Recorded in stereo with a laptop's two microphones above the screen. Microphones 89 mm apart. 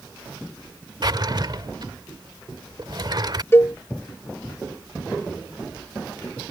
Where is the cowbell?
30° left (ahead or behind).